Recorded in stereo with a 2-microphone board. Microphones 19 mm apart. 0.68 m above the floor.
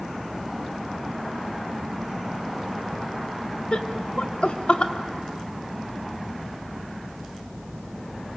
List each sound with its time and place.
3.7 s laughter: 60° left (ahead or behind), 1.7 m